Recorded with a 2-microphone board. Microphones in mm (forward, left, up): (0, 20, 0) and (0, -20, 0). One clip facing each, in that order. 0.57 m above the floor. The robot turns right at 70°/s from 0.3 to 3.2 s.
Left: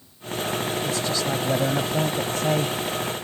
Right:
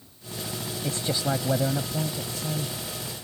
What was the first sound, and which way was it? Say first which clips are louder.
A man speaking: left 3 dB; 40° right.